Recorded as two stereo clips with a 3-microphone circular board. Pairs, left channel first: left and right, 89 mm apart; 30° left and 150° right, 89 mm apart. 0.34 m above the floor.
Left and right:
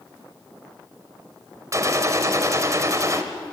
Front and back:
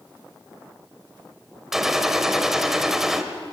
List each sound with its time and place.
1.7 s a gunshot: 70° right, 1.6 m